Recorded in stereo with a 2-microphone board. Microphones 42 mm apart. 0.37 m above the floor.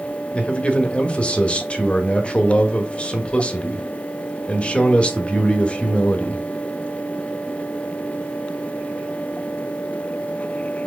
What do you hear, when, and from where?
0.3 s a man speaking: 30° left (ahead or behind), 1.1 m